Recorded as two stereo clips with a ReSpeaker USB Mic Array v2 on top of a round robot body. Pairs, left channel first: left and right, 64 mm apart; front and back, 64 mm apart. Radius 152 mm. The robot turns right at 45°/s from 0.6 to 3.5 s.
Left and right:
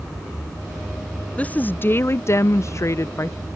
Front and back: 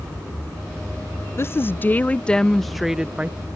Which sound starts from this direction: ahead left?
A woman speaking, at 1.4 s.